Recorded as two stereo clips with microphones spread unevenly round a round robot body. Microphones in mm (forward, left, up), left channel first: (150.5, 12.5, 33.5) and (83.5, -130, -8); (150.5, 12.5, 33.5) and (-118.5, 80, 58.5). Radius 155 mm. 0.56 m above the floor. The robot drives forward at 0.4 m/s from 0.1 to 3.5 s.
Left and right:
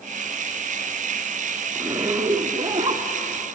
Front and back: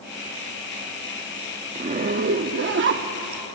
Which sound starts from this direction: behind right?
A zipper, at 1.8 s.